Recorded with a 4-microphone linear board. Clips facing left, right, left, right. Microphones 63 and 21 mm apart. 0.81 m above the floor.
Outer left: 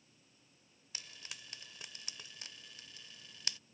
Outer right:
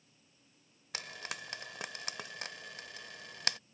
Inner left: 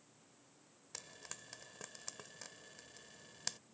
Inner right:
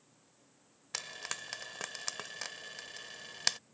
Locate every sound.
0.9 s frying: 70° right (ahead or behind)